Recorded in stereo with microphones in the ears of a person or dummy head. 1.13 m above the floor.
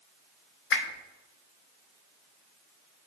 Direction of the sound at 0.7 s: 60° left (ahead or behind).